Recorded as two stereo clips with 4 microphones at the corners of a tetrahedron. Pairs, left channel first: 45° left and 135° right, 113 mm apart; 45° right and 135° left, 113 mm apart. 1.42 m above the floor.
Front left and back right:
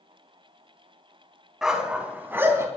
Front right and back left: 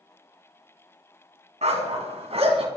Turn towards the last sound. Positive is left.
turn(degrees=160)